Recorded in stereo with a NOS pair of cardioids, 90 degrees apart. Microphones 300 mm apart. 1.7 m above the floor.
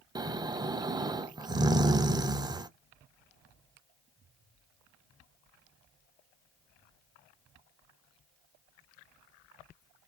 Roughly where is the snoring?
Ahead.